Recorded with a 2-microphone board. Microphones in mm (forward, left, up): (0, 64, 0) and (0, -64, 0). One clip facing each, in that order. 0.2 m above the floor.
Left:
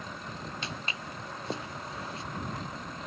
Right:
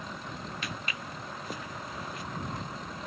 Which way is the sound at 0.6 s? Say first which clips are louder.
Even; 25° left (ahead or behind).